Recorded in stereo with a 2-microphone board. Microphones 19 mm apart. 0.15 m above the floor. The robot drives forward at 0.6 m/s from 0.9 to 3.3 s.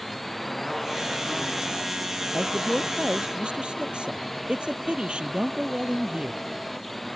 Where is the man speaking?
65° right (ahead or behind); by 6.5 s 60° right (ahead or behind).